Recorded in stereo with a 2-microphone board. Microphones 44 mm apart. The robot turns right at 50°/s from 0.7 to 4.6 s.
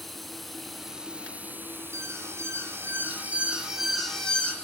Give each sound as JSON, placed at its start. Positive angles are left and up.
{"t": 0.0, "sound": "running water", "azimuth_deg": 180, "distance_m": 1.1}
{"t": 1.9, "sound": "an alarm", "azimuth_deg": -105, "distance_m": 4.0}